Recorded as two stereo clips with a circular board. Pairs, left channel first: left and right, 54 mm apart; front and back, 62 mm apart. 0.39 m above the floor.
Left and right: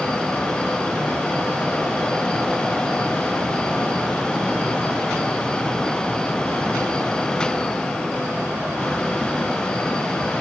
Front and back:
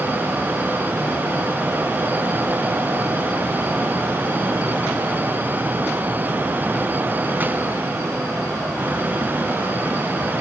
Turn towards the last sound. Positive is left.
No sound to turn to.